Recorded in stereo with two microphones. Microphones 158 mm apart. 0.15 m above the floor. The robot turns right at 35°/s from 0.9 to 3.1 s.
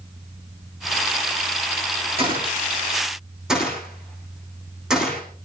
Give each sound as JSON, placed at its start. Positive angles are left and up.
{"t": 2.2, "sound": "a gunshot", "side_deg": -35, "distance_m": 6.0}